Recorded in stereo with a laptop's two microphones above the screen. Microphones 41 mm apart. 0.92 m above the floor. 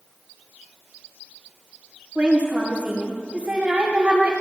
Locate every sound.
2.1 s a woman speaking: 30° right (ahead or behind), 5 m